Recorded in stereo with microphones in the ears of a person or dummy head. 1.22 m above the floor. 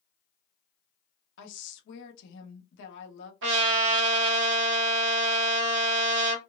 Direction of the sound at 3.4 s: 70° right (ahead or behind).